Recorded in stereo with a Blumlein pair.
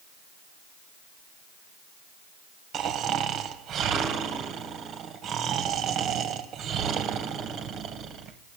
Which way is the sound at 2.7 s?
30° right.